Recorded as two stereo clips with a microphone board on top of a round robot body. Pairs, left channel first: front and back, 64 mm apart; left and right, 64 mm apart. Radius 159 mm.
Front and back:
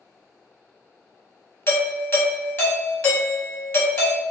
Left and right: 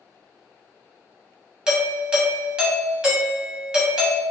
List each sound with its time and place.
1.7 s a doorbell: 20° right, 1.3 m